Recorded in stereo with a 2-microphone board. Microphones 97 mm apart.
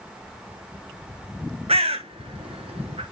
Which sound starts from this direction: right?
A bird, at 1.7 s.